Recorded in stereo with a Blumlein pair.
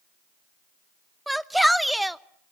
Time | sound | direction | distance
1.3 | a shout | straight ahead | 0.6 m